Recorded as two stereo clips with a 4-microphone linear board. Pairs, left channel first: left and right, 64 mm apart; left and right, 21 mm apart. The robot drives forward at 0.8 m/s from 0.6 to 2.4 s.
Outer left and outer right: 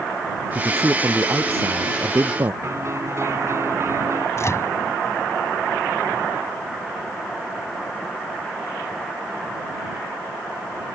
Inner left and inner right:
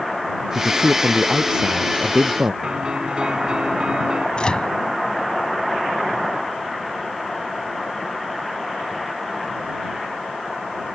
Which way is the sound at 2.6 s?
50° right (ahead or behind).